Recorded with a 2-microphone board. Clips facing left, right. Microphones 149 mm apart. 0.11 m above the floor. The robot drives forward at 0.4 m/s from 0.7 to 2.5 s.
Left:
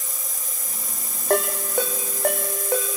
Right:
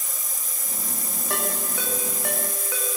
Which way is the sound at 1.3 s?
50° left (ahead or behind).